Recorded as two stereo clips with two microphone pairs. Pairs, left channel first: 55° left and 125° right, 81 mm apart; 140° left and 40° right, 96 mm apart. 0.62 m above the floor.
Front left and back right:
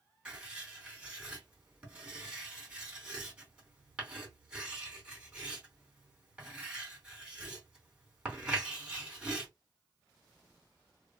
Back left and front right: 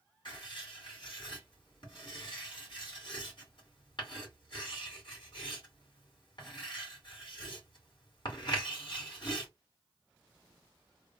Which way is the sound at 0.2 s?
160° left.